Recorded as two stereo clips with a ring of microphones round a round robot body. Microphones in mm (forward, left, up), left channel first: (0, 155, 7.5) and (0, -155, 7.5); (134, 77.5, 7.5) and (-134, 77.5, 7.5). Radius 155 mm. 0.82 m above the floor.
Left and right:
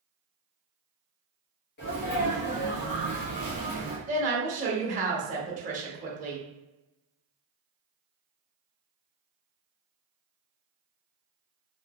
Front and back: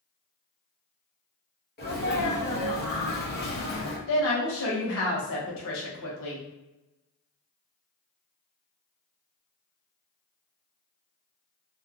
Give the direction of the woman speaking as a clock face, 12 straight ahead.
1 o'clock.